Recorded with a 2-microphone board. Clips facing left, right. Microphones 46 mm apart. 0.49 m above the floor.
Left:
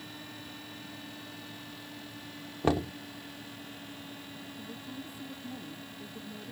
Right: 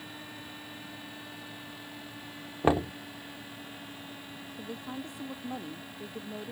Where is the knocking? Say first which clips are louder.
Right 3 dB; 25° right (ahead or behind).